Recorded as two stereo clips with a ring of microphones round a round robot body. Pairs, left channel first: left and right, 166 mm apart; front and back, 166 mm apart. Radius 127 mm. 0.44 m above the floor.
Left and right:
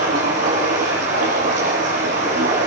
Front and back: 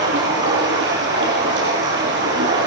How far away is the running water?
About 9 m.